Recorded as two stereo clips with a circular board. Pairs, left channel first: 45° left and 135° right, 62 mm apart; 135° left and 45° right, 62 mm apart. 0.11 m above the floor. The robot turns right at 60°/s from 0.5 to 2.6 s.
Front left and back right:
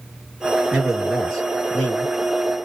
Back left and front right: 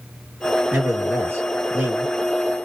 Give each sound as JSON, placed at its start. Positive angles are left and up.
{"t": 0.7, "sound": "a man speaking", "azimuth_deg": -75, "distance_m": 1.5}